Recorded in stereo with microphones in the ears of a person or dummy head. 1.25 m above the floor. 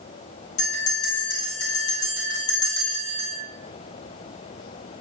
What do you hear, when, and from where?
0.6 s a bell: 70° left (ahead or behind), 2.5 m